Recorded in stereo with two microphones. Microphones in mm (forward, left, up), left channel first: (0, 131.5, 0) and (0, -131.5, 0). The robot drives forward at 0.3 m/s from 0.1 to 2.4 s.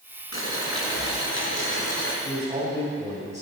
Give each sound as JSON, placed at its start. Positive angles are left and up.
{"t": 0.3, "sound": "boiling", "side_deg": 55, "distance_m": 3.5}
{"t": 2.2, "sound": "a man speaking", "side_deg": -25, "distance_m": 5.5}